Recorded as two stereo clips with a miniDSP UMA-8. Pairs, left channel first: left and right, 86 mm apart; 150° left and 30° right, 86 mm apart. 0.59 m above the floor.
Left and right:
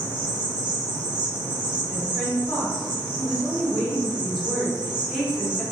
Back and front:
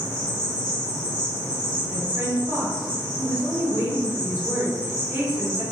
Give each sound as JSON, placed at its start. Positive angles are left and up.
{"t": 0.0, "sound": "an insect", "azimuth_deg": -170, "distance_m": 0.9}
{"t": 1.9, "sound": "a woman speaking", "azimuth_deg": 0, "distance_m": 1.3}